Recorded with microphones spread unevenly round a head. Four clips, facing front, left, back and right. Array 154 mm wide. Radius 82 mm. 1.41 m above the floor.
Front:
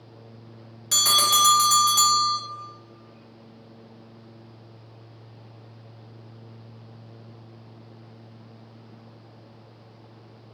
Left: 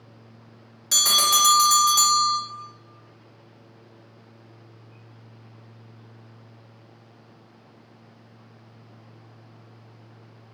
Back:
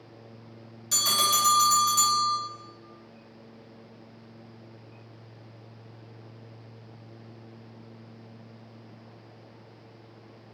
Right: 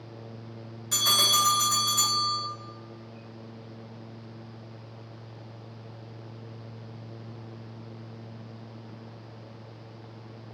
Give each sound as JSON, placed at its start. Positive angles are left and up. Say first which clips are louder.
{"t": 0.9, "sound": "a bell", "louder": "left 4 dB, front 4 dB", "azimuth_deg": 75, "distance_m": 0.9}